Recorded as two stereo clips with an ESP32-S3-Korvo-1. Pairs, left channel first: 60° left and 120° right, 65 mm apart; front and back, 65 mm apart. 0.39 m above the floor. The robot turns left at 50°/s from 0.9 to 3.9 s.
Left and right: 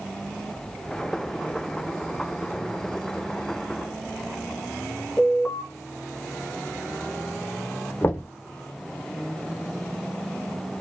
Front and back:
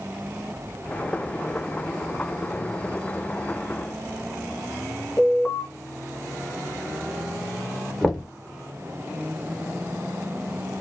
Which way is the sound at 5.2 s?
20° right.